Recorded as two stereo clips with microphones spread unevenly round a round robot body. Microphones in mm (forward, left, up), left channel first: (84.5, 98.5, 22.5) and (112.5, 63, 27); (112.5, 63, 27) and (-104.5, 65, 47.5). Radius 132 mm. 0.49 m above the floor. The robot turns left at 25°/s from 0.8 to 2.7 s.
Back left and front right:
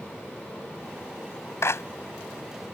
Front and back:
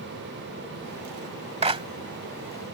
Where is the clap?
120° left; by 1.8 s 110° left.